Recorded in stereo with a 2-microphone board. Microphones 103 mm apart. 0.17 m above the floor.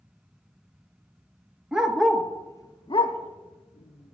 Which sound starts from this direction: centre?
A dog barking, at 1.7 s.